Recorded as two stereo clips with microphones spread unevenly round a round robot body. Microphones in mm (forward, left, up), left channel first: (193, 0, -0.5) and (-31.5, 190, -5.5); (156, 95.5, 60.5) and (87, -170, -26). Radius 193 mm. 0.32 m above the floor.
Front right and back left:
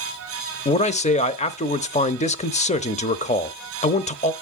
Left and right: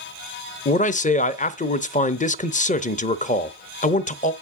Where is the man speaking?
Straight ahead, 0.9 m.